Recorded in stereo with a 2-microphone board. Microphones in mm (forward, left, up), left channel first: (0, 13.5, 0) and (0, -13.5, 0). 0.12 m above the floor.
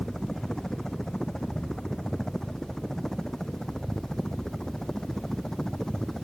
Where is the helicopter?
20° left (ahead or behind).